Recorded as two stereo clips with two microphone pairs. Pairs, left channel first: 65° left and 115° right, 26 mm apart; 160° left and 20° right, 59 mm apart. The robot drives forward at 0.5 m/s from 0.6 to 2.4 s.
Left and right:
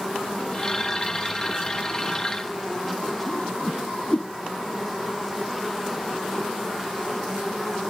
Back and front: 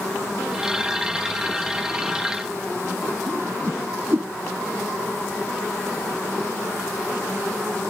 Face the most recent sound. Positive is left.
turn(degrees=25)